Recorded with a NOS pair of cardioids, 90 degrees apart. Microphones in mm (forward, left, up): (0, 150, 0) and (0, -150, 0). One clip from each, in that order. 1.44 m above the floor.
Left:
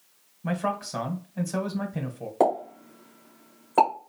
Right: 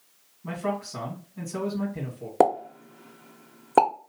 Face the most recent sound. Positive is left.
turn(degrees=-55)